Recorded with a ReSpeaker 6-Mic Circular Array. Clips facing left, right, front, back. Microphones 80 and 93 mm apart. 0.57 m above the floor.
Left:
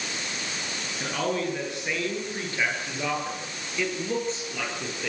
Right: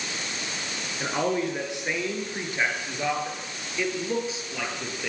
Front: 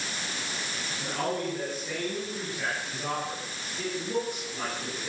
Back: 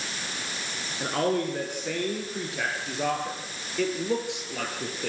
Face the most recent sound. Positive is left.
turn(degrees=-175)